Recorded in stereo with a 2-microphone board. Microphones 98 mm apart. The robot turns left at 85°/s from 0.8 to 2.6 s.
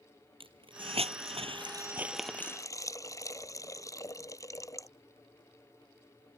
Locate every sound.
0.4 s a hiss: 60° right (ahead or behind); by 4.9 s 30° left (ahead or behind)